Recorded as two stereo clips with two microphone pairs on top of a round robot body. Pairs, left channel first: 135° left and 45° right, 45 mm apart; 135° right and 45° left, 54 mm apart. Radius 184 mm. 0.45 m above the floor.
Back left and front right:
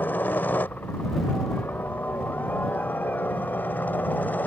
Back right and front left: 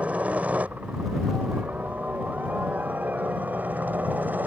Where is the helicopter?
110° left; by 4.5 s 100° left.